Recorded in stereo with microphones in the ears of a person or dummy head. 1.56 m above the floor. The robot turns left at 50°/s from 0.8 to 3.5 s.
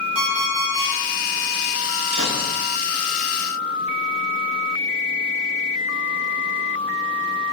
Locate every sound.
0.1 s an alarm clock: 75° right (ahead or behind), 3.5 m; by 0.9 s 80° right, 3.5 m
2.1 s a gunshot: 75° right (ahead or behind), 4 m